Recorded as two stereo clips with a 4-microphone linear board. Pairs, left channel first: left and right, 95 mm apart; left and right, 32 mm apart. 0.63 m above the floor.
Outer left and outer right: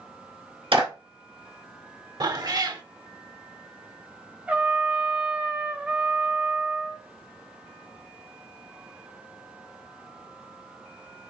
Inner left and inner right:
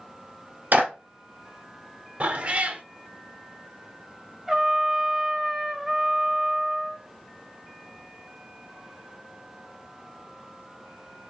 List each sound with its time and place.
0.7 s a clap: 65° right (ahead or behind), 1.8 m
2.2 s a cat meowing: 45° right (ahead or behind), 0.5 m
4.5 s a trumpet: 10° right (ahead or behind), 0.6 m